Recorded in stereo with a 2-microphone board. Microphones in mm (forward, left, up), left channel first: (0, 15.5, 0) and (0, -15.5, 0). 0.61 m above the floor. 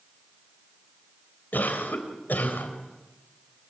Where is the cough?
70° left (ahead or behind), 3.5 m.